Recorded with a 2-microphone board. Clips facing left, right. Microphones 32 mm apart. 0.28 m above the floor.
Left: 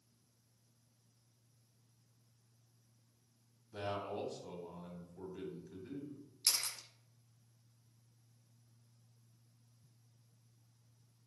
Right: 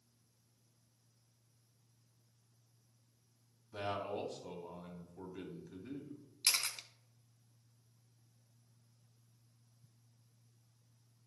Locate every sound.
3.7 s a man speaking: 10° right (ahead or behind), 2 m
6.4 s a camera shutter: 80° right, 0.7 m